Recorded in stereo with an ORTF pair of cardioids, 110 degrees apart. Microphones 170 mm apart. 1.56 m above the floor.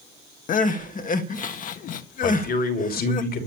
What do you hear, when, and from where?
0.5 s crying: 50° left, 1.6 m
2.2 s a man speaking: 65° left, 3 m